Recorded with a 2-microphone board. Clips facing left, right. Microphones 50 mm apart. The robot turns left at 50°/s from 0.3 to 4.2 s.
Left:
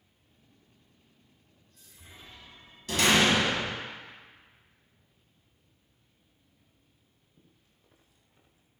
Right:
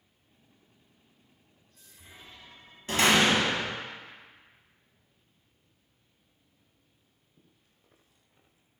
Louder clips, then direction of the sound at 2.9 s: Right 1 dB; 100° right.